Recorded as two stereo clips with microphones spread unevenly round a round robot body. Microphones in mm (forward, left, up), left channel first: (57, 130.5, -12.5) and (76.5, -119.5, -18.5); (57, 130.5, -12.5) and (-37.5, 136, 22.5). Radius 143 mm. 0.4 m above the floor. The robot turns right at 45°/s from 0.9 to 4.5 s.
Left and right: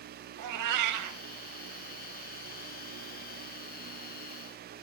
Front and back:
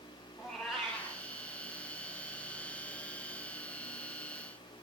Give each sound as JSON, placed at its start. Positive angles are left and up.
{"t": 0.4, "sound": "a cat meowing", "azimuth_deg": -90, "distance_m": 0.8}